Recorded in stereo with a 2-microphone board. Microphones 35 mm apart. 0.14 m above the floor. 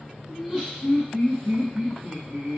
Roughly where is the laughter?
Centre.